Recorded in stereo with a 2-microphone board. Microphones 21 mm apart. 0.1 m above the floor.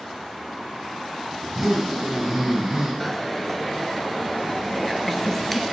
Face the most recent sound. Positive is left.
turn(degrees=15)  # may be behind; listen again after turning